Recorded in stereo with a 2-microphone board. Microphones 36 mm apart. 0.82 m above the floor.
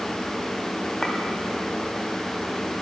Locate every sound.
1.0 s a clink: 10° left (ahead or behind), 3 m